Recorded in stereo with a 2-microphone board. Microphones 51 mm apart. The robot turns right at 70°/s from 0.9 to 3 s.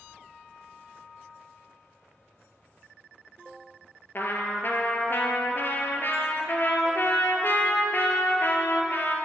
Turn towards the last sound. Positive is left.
turn(degrees=50)  # may be behind; listen again after turning